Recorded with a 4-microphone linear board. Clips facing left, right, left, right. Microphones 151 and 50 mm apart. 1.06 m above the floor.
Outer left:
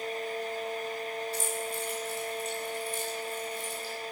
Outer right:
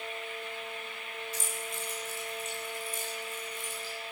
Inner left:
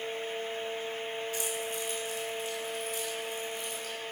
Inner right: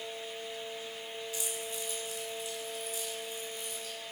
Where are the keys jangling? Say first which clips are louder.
Outer left 6 dB, inner left 5 dB; 65° left (ahead or behind), 5 m.